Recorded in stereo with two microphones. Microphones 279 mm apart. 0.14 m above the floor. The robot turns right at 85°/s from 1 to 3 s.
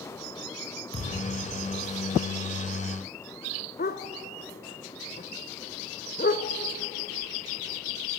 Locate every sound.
0.9 s a thud: 40° right (ahead or behind), 9 m; by 1.4 s 10° right (ahead or behind), 9 m
3.8 s a dog barking: 35° left (ahead or behind), 0.9 m